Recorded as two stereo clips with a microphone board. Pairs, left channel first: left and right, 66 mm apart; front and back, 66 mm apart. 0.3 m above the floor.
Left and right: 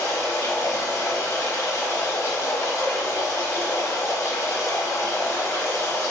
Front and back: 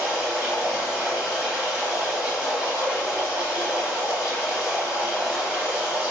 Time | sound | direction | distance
0.0 | running water | 110° left | 0.8 m